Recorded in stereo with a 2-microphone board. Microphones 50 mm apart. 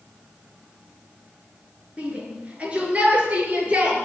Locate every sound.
2.0 s a shout: 20° right (ahead or behind), 6 m; by 4.0 s 25° right (ahead or behind), 7.5 m